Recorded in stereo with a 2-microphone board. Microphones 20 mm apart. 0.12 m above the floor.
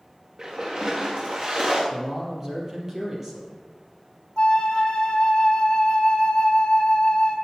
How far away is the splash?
About 5 m.